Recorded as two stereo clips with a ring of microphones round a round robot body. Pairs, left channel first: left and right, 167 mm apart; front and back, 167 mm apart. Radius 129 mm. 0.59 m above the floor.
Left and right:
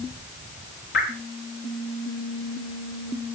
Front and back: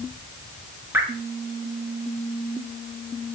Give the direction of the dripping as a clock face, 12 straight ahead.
9 o'clock.